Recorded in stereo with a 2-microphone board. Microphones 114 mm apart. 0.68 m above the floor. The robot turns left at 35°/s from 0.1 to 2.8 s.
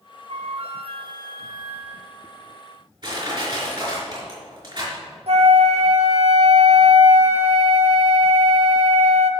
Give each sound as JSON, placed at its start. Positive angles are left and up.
{"t": 0.3, "sound": "a flute", "azimuth_deg": -100, "distance_m": 1.2}
{"t": 3.0, "sound": "crushing", "side_deg": -45, "distance_m": 5.0}
{"t": 5.3, "sound": "a flute", "side_deg": -65, "distance_m": 0.9}